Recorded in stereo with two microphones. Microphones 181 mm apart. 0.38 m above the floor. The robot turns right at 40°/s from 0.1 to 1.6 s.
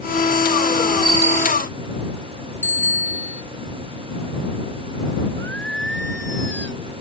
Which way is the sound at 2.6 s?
10° left (ahead or behind).